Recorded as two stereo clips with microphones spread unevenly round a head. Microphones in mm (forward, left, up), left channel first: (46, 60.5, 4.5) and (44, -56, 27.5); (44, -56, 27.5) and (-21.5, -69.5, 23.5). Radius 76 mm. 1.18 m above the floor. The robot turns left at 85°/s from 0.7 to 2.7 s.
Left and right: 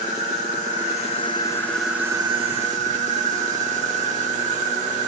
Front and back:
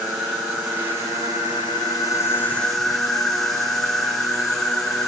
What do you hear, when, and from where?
0.0 s an insect: 95° left, 1.7 m; by 5.1 s 75° right, 1.7 m